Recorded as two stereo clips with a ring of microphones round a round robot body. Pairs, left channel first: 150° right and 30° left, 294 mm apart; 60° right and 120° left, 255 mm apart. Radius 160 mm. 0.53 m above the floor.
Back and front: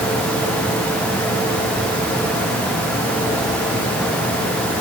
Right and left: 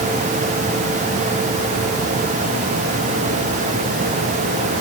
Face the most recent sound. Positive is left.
No sound to turn to.